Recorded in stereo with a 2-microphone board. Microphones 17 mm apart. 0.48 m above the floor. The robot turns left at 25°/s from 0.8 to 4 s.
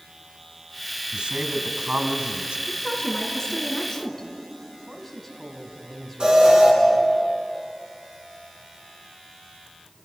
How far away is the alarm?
About 7 m.